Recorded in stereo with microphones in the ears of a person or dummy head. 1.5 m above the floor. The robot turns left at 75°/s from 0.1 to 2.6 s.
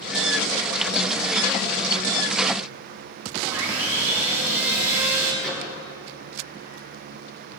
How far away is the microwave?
About 3 m.